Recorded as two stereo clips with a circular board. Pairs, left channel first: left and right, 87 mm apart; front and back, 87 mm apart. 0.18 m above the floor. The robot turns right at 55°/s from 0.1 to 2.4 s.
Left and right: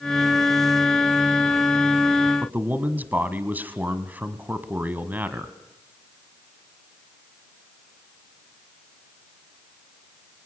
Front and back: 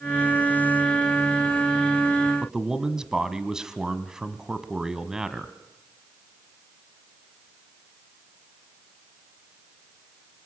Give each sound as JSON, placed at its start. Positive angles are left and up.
{"t": 2.4, "sound": "a man speaking", "azimuth_deg": -110, "distance_m": 1.3}